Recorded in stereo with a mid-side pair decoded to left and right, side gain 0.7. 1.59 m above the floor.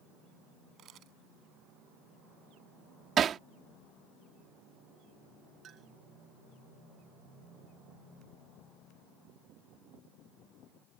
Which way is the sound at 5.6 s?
40° right.